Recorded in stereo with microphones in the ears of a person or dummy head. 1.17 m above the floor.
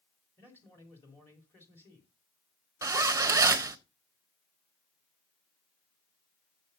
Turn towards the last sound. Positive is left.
turn(degrees=-15)  # may be behind; listen again after turning